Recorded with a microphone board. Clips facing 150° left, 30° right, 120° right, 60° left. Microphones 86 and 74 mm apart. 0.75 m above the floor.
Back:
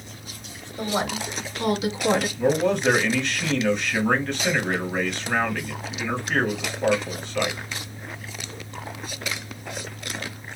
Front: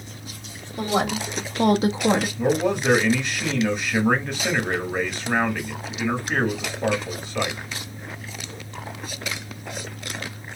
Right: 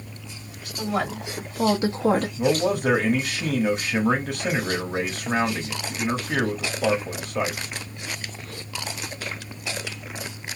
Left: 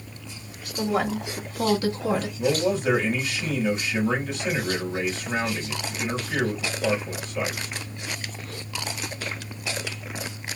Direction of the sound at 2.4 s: 110° right.